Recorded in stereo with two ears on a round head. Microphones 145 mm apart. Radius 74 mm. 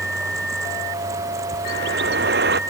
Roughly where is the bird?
Right.